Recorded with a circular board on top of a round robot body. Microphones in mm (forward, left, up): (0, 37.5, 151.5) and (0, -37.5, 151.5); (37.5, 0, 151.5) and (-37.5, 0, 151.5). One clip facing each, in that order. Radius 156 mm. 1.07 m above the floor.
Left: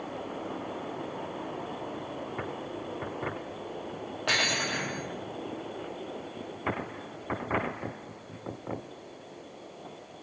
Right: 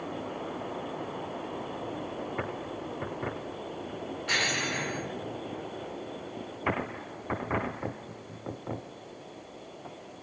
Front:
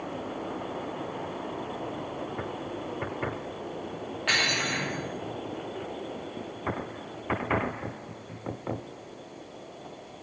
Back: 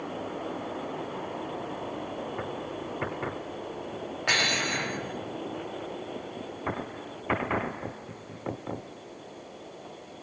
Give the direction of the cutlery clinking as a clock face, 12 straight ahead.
9 o'clock.